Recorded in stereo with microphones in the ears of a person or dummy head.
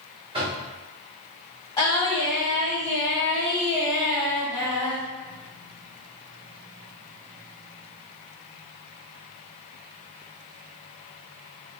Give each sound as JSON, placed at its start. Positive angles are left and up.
{"t": 0.3, "sound": "knocking", "side_deg": -25, "distance_m": 1.3}
{"t": 1.8, "sound": "singing", "side_deg": 20, "distance_m": 1.6}